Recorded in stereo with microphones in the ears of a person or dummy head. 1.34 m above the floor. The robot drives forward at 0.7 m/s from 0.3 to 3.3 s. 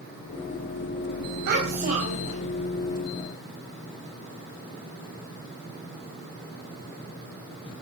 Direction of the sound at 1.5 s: 55° right (ahead or behind).